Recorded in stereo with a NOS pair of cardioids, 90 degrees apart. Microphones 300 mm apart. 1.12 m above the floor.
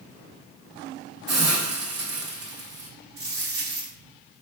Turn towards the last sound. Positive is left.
turn(degrees=-50)